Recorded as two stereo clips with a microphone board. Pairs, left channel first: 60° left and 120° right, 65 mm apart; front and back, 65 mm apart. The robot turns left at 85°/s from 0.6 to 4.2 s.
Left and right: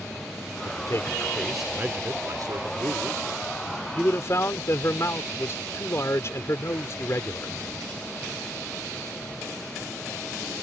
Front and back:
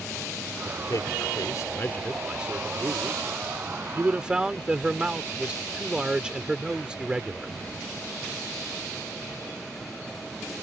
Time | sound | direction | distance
0.6 | a man speaking | 45° left | ?